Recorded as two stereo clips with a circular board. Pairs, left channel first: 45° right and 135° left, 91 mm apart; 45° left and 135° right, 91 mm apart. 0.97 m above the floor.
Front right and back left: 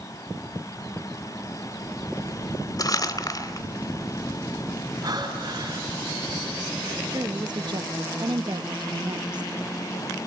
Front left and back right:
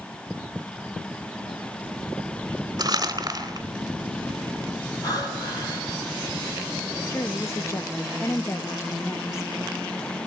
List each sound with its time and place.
2.8 s crumpling: 90° right, 3.5 m
5.0 s breathing: 85° left, 8 m
7.1 s a woman speaking: 100° left, 1.0 m